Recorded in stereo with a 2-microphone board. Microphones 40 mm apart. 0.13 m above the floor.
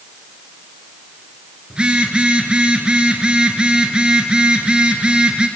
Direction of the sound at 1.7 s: 25° right (ahead or behind).